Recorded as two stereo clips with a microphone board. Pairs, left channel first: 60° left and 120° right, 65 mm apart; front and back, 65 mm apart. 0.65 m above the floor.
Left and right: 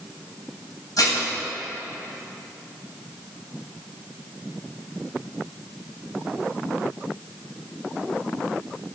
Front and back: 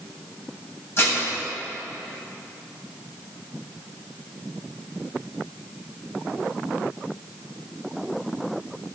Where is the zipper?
No zipper in this recording.